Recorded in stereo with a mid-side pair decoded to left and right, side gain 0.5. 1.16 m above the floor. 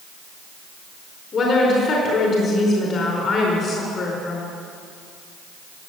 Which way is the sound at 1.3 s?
45° left.